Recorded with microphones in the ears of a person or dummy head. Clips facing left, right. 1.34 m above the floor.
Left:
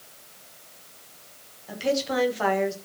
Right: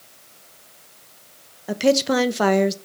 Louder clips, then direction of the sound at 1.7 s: Right 8 dB; 75° right (ahead or behind).